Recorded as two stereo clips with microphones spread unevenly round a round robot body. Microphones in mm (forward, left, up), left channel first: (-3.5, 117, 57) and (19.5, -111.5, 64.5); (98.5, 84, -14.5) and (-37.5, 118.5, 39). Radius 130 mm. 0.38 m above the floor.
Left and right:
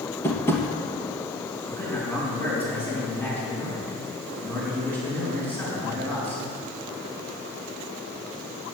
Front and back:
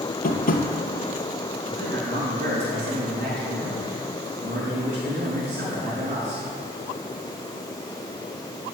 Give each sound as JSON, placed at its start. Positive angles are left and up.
{"t": 0.2, "sound": "tapping", "azimuth_deg": 15, "distance_m": 2.5}
{"t": 1.7, "sound": "a man speaking", "azimuth_deg": 180, "distance_m": 5.5}